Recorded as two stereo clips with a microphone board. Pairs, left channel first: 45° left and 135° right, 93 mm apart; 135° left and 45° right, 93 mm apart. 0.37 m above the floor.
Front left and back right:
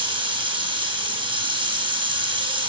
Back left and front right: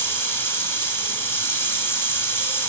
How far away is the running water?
About 1.7 m.